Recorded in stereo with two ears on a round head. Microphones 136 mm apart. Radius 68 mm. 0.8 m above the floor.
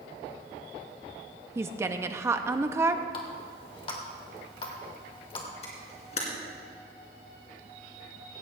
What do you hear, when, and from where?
1.6 s a woman speaking: 15° right (ahead or behind), 0.7 m
3.1 s a running tap: 35° left (ahead or behind), 2 m
5.6 s a camera shutter: 45° left (ahead or behind), 3 m